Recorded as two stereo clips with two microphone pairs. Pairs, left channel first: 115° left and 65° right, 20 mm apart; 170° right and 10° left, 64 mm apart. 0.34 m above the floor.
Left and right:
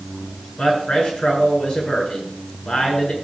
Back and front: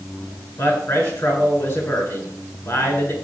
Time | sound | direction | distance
0.6 | a man speaking | 150° left | 6 m